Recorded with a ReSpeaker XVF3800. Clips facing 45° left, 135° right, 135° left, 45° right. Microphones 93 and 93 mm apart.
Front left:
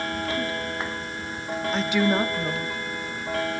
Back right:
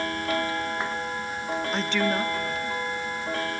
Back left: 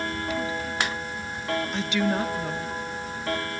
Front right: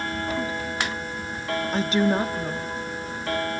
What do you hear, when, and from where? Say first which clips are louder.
1.7 s a woman speaking: front left 5 dB, front right 6 dB; 50° right, 0.8 m; by 2.8 s 45° left, 1.1 m